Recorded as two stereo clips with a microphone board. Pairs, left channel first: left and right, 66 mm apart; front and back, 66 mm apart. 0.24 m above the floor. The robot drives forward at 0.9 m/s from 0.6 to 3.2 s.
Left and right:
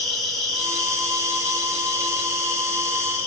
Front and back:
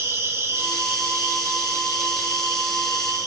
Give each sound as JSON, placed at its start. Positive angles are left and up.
{"t": 0.0, "sound": "an insect", "azimuth_deg": 175, "distance_m": 2.5}